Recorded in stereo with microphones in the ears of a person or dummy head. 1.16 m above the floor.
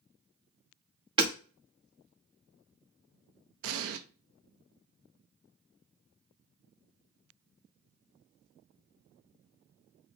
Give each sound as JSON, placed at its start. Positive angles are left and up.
{"t": 1.2, "sound": "hammering", "side_deg": -25, "distance_m": 1.7}
{"t": 3.6, "sound": "an explosion", "side_deg": -75, "distance_m": 0.7}